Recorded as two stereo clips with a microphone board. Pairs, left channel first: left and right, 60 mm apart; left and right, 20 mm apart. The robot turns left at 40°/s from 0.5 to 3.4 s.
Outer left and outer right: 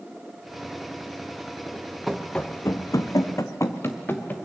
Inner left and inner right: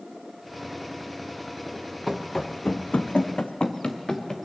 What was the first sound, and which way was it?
Running footsteps, 5° right (ahead or behind).